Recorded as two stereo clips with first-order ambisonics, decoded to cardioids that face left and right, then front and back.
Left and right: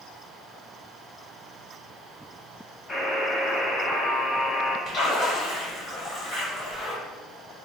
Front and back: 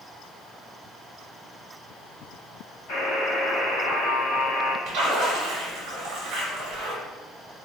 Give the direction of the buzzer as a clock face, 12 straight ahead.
12 o'clock.